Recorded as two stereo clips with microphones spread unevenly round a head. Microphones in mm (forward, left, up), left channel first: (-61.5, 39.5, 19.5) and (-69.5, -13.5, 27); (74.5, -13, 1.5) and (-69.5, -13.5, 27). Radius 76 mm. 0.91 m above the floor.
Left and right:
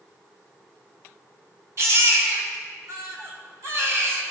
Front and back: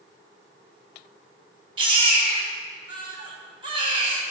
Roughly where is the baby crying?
Behind right.